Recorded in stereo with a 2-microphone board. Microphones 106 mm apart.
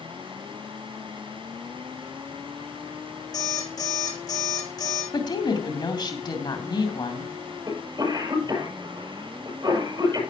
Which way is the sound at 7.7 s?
40° right (ahead or behind).